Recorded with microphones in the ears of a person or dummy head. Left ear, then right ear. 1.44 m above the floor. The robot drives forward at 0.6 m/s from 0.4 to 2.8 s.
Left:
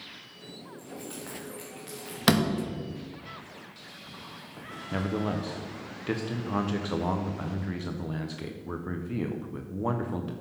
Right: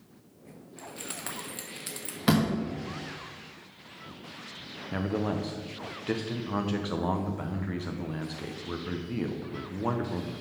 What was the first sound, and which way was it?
Keys jangling, 40° right (ahead or behind).